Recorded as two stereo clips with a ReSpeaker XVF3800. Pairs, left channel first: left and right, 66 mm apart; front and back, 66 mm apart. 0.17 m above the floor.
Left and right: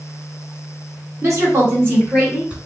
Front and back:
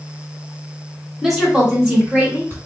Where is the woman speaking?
95° right, 1.8 m; by 2.6 s 150° right, 1.6 m.